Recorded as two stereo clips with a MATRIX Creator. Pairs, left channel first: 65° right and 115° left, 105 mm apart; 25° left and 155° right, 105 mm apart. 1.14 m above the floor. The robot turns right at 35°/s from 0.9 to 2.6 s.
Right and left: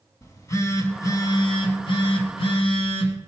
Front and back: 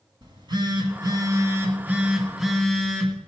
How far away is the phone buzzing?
About 1.8 m.